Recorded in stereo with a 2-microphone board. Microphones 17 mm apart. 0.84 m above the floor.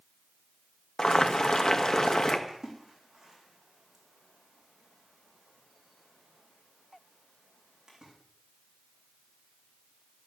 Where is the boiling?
40° left (ahead or behind), 1.4 m.